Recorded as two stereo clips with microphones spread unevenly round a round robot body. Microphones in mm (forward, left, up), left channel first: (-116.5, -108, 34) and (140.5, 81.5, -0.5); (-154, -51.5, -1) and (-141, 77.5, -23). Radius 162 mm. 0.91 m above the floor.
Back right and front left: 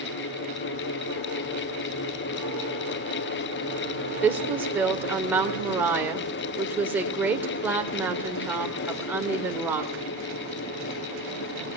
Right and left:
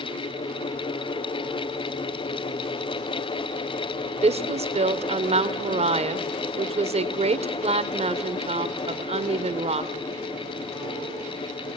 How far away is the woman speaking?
About 2.5 m.